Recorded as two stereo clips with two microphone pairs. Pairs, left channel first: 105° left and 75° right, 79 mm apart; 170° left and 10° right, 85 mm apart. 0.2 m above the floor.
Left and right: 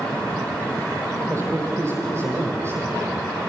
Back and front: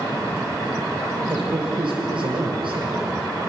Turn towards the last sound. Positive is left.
turn(degrees=-20)